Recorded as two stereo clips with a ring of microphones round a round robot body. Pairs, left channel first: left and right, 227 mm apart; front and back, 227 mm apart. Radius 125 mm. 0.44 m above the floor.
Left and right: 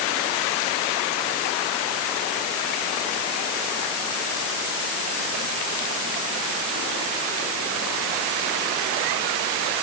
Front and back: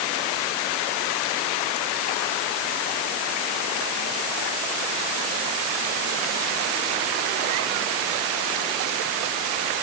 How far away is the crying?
I don't hear crying.